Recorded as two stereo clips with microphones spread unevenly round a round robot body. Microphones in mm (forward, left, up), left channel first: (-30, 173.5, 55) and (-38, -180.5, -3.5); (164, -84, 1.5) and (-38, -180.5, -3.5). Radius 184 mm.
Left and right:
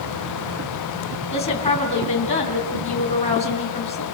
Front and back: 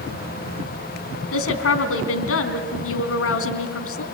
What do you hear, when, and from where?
1.3 s a woman speaking: 10° left, 3.5 m